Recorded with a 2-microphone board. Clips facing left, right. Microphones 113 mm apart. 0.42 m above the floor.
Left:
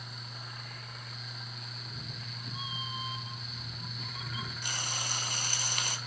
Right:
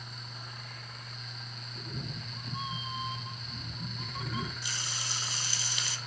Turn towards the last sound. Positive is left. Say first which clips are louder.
# left 2 dB
turn(degrees=50)  # may be behind; listen again after turning